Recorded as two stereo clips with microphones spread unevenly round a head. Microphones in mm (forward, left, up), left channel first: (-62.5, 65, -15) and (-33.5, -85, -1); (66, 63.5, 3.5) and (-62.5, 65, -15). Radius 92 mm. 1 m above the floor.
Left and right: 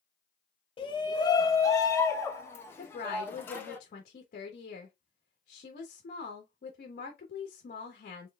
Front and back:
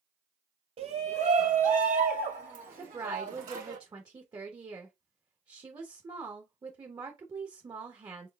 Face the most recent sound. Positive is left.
turn(degrees=125)